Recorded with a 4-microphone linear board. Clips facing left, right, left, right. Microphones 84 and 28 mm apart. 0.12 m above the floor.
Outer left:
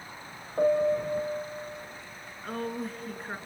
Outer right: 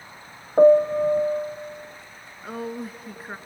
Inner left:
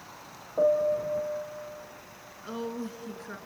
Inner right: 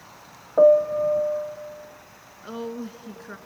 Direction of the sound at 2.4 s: 5° right (ahead or behind).